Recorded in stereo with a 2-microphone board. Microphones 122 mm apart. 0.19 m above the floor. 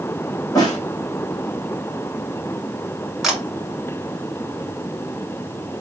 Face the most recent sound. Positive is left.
turn(degrees=0)  # may be behind; listen again after turning